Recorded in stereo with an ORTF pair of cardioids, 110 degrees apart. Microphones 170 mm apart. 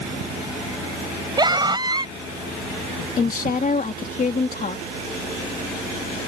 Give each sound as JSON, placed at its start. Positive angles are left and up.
{"t": 1.4, "sound": "a scream", "azimuth_deg": -25}
{"t": 3.2, "sound": "a woman speaking", "azimuth_deg": 55}